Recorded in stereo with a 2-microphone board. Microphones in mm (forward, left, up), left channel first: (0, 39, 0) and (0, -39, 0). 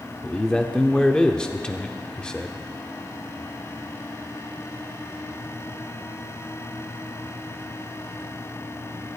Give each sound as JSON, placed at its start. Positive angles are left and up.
{"t": 0.2, "sound": "a man speaking", "side_deg": 10, "distance_m": 0.7}